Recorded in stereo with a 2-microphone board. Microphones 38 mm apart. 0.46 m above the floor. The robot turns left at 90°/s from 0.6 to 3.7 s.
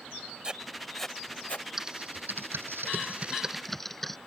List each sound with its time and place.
0.4 s writing: 25° right (ahead or behind); by 1.7 s 55° left (ahead or behind)
1.8 s typing on a keyboard: 10° right (ahead or behind); by 4.2 s 5° left (ahead or behind)